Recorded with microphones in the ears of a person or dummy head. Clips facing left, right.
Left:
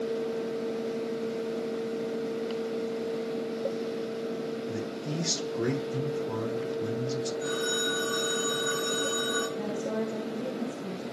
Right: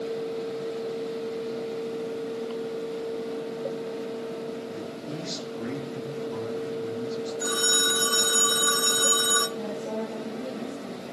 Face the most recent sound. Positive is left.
turn(degrees=15)  # may be behind; listen again after turning